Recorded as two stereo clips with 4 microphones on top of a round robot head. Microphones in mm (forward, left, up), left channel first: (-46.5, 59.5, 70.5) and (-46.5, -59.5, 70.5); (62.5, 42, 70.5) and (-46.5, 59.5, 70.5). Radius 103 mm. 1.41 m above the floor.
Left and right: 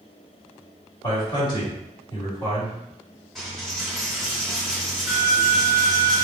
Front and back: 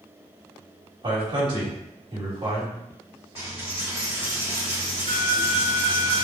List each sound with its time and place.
1.0 s a man speaking: 135° left, 1.7 m
3.4 s a dropped coin: 175° left, 1.6 m